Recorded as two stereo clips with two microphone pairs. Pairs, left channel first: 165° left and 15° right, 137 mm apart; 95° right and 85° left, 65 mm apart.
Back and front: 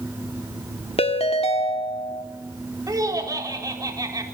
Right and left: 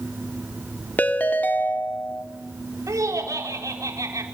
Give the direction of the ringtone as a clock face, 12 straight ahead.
5 o'clock.